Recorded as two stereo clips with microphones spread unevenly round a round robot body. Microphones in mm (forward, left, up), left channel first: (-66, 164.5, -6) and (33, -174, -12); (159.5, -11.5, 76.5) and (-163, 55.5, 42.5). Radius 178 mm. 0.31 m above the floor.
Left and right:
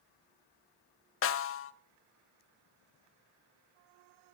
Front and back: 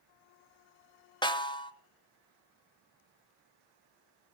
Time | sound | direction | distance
1.2 | a snare drum | 65° left | 0.7 m